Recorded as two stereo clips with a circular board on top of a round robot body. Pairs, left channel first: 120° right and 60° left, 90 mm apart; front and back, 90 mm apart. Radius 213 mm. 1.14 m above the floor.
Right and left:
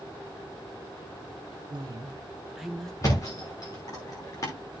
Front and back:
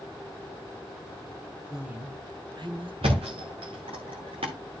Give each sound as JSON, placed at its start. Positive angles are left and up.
{"t": 1.7, "sound": "a woman speaking", "azimuth_deg": 95, "distance_m": 1.2}
{"t": 3.0, "sound": "a thud", "azimuth_deg": -170, "distance_m": 0.9}